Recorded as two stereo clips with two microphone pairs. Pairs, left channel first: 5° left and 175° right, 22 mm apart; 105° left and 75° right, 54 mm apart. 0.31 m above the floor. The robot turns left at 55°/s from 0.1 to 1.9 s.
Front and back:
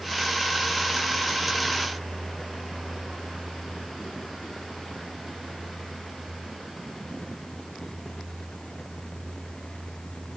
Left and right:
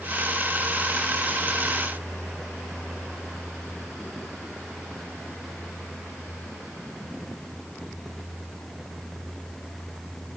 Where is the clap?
I don't hear a clap.